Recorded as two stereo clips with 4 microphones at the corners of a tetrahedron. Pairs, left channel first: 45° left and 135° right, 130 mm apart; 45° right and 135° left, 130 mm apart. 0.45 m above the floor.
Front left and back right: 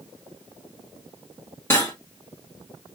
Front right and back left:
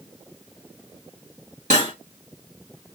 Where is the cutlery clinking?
115° left, 1.5 m.